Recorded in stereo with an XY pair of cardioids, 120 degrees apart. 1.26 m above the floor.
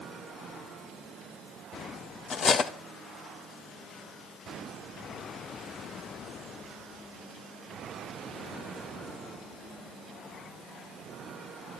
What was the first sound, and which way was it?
Cutlery clinking, 45° left.